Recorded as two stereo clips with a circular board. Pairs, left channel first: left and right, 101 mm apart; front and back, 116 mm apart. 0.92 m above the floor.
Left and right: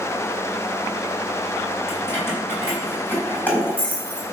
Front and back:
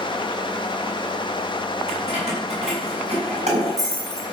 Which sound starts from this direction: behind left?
Keys jangling, at 1.9 s.